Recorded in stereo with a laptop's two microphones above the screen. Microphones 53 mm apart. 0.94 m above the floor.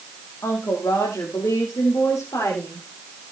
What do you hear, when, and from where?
0.4 s a woman speaking: 70° left (ahead or behind), 2.5 m; by 2.9 s 75° left (ahead or behind), 3.5 m